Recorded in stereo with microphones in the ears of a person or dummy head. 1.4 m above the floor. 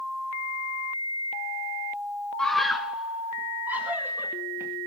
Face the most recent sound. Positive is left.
turn(degrees=-10)  # may be behind; listen again after turning